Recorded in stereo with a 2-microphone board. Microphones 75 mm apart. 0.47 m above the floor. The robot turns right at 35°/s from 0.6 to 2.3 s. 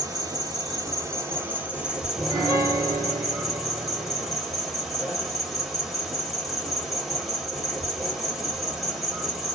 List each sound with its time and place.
0.0 s an insect: 55° right, 1.2 m; by 9.6 s straight ahead, 1.2 m
2.1 s a piano: 40° right (ahead or behind), 1.5 m; by 4.4 s 35° right (ahead or behind), 1.5 m